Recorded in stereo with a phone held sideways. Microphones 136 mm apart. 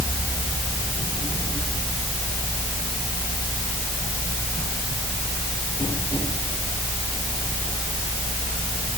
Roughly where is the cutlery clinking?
I don't hear cutlery clinking.